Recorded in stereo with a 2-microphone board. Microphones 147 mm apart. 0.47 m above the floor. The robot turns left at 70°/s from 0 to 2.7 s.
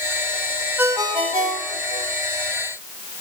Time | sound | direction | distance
0.8 | a ringtone | 10° right | 1.2 m